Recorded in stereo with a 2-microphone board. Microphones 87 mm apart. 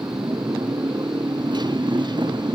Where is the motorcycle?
55° right (ahead or behind); by 2.6 s 60° right (ahead or behind).